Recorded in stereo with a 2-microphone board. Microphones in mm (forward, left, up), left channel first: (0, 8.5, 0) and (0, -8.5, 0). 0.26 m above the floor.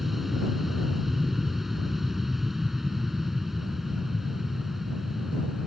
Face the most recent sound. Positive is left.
turn(degrees=-15)  # may be behind; listen again after turning